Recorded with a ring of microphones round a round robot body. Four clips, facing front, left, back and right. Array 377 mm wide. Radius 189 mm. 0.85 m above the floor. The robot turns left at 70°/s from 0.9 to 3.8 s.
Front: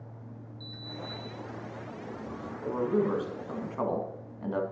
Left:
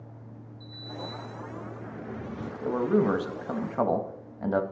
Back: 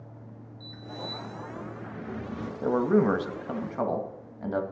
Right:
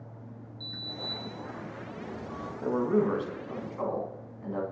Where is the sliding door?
115° right, 2.5 m; by 2.5 s 130° left, 2.5 m.